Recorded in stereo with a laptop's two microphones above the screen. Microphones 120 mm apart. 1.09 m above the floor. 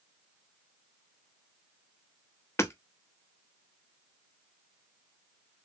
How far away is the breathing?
I don't hear breathing.